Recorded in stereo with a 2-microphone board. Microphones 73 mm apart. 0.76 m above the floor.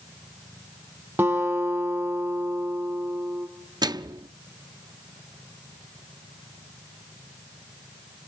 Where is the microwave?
65° right (ahead or behind), 0.7 m.